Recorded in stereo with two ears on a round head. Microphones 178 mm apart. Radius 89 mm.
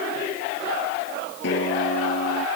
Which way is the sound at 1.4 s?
65° left (ahead or behind).